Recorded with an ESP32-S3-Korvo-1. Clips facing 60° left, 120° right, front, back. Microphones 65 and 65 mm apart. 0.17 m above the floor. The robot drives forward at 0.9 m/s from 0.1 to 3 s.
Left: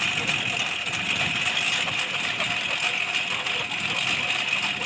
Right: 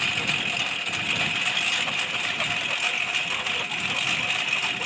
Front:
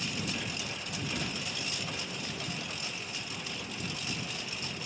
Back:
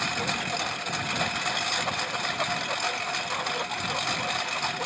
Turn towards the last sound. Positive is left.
turn(degrees=150)